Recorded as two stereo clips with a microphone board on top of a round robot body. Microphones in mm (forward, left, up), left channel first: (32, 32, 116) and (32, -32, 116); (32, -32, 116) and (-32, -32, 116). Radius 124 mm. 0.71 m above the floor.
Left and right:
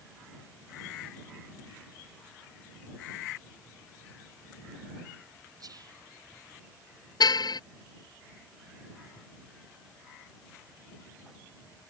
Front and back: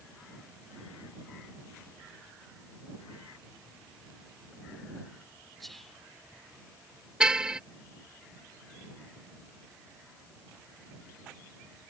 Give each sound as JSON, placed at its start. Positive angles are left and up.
{"t": 5.6, "sound": "whispering", "azimuth_deg": -90}
{"t": 7.2, "sound": "a car horn", "azimuth_deg": 100}